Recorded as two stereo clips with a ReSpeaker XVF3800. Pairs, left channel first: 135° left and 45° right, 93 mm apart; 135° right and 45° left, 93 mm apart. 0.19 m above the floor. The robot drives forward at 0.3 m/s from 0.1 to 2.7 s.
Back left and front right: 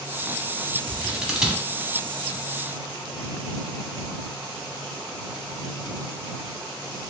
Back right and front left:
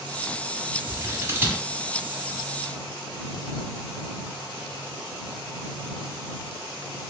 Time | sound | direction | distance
0.9 | scissors | 20° left | 0.8 m